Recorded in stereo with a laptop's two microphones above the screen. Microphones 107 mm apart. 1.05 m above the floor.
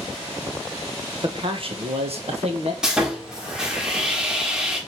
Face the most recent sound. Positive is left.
turn(degrees=-5)  # may be behind; listen again after turning